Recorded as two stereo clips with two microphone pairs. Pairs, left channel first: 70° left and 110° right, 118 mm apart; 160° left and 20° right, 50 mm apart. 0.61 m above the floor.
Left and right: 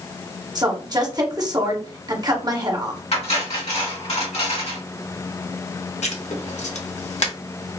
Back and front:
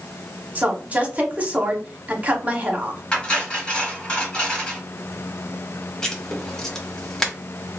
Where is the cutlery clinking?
90° left, 2 m.